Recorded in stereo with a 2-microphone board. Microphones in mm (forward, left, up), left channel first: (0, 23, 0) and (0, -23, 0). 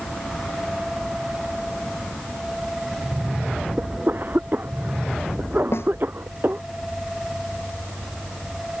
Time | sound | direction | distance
3.8 | a cough | 45° right (ahead or behind) | ?
5.7 | a snare drum | 70° left (ahead or behind) | ?